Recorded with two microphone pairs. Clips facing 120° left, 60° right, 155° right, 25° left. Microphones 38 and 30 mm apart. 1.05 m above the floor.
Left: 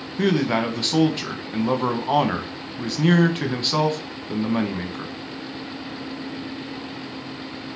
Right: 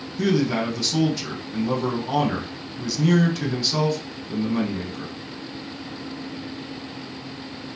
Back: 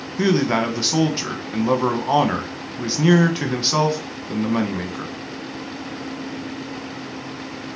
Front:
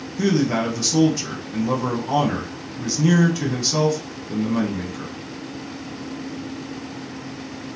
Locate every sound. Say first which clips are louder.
0.2 s a man speaking: left 1 dB, back 1 dB; 160° left, 0.9 m